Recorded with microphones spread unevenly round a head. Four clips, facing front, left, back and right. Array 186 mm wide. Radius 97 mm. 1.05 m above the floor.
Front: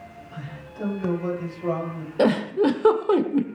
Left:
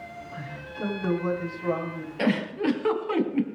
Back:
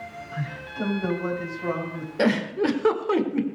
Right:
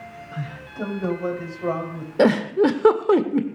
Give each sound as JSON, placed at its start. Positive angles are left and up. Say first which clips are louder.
{"t": 0.3, "sound": "a man speaking", "louder": "right 7 dB, back 5 dB", "azimuth_deg": -95, "distance_m": 7.0}
{"t": 2.2, "sound": "a giggle", "louder": "right 9 dB, front 3 dB", "azimuth_deg": -80, "distance_m": 1.8}